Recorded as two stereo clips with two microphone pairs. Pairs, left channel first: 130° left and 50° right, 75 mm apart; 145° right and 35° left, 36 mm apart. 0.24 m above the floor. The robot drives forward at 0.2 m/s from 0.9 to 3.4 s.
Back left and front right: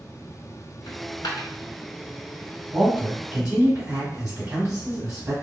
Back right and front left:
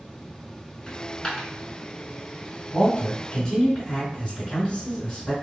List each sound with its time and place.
0.9 s a dropped coin: 155° left, 0.7 m
2.7 s a man speaking: 100° right, 1.3 m; by 5.3 s 105° right, 1.3 m